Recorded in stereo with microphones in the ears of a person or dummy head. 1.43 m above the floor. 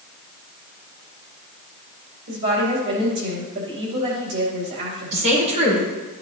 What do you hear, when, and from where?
2.3 s a woman speaking: 60° right (ahead or behind), 2.5 m
5.1 s a woman speaking: 35° right (ahead or behind), 3.5 m